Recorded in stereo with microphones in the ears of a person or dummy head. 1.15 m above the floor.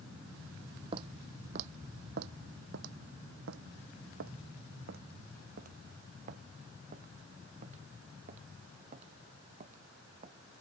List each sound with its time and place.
0.9 s footsteps: 30° right (ahead or behind); by 10.3 s 40° right (ahead or behind)